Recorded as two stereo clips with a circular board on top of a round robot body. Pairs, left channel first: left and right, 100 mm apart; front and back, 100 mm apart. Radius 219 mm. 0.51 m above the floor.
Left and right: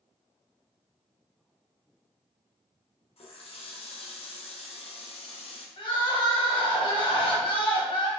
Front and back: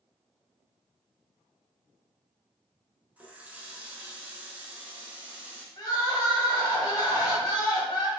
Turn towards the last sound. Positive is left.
turn(degrees=55)